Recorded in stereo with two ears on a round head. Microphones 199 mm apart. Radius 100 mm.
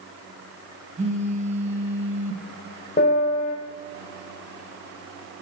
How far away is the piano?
About 1.3 m.